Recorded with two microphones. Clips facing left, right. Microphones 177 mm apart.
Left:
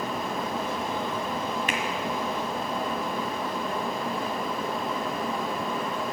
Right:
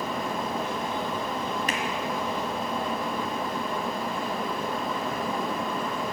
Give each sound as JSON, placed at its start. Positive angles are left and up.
{"t": 1.7, "sound": "a finger snap", "side_deg": -40, "distance_m": 1.6}